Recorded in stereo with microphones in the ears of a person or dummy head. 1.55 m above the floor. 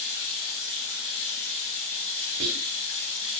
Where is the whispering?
65° right (ahead or behind), 0.5 m.